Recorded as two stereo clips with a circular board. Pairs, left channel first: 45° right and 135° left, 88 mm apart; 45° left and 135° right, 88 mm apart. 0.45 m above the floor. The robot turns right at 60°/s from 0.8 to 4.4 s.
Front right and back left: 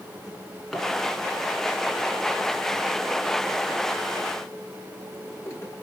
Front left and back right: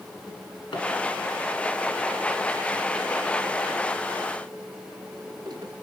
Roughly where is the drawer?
Ahead left.